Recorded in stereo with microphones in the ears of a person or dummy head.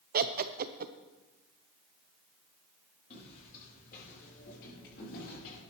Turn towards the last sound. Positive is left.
turn(degrees=65)  # may be behind; listen again after turning